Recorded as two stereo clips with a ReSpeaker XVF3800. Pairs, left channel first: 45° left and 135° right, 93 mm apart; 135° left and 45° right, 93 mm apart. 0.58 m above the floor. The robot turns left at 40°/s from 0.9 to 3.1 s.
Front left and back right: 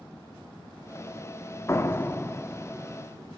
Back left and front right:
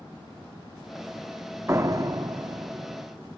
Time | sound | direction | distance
1.7 | a door slam | 5° left | 0.7 m